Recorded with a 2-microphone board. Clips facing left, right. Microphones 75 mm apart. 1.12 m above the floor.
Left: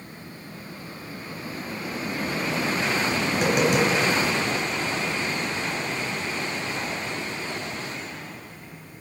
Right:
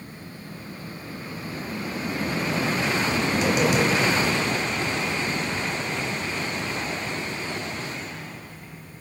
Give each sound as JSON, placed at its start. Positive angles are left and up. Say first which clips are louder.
{"t": 3.3, "sound": "tapping", "louder": "left 1 dB", "side_deg": 45, "distance_m": 3.0}